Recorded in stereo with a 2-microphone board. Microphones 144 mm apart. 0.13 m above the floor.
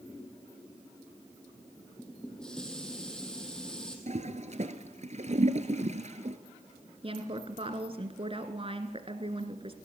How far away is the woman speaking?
About 1.7 m.